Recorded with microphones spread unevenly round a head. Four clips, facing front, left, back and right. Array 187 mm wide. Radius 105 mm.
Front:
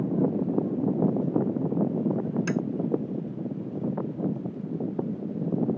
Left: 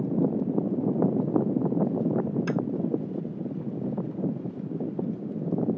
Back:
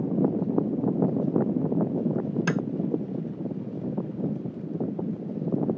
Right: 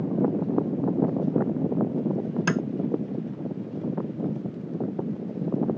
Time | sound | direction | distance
2.5 | tapping | 140° right | ?